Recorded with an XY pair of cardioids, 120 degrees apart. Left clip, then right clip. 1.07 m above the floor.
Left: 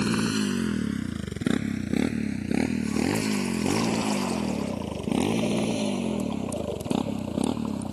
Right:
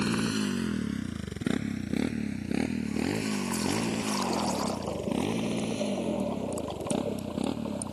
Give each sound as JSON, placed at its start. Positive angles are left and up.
{"t": 0.0, "sound": "a motorcycle", "azimuth_deg": 15}